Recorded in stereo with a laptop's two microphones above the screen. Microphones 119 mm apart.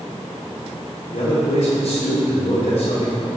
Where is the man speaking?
80° left, 3.5 m.